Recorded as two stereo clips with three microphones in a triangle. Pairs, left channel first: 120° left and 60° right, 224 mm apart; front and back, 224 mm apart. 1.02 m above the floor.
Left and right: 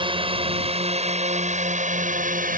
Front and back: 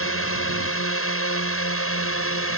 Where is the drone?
5° left; by 2.6 s 10° right.